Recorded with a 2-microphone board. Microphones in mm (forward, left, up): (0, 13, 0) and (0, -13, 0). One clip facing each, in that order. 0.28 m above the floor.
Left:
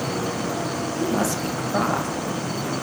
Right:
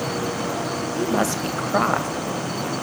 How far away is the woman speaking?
About 1.0 m.